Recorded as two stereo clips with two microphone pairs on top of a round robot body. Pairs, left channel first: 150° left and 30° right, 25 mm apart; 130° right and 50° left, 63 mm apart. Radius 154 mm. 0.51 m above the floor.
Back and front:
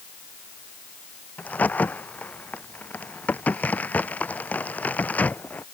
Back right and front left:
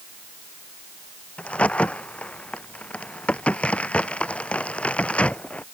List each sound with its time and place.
1.4 s a crack: 160° left